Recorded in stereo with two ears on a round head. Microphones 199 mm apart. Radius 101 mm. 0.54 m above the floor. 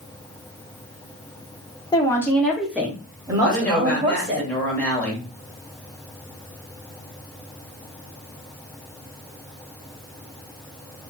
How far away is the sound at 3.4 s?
About 2.5 m.